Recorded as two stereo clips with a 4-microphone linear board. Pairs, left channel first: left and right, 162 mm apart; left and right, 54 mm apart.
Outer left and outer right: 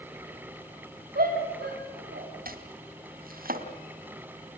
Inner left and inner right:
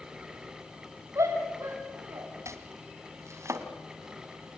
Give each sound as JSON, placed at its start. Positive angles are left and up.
{"t": 1.1, "sound": "a shout", "side_deg": -65, "distance_m": 2.5}
{"t": 2.5, "sound": "chopping", "side_deg": -65, "distance_m": 2.5}